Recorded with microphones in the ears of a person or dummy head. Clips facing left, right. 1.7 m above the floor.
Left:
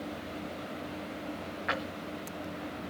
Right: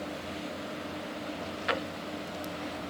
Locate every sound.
1.7 s a drawer: 25° right (ahead or behind), 0.9 m